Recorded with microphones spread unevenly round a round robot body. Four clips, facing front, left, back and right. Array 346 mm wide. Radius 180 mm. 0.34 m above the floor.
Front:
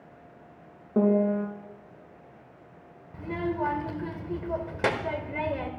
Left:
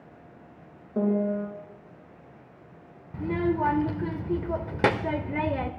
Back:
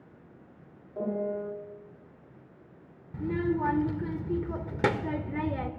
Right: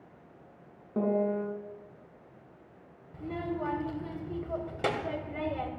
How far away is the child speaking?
About 0.6 m.